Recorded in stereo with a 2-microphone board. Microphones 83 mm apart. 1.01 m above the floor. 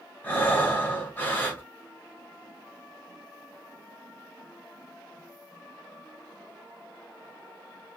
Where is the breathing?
25° left (ahead or behind), 1.1 m.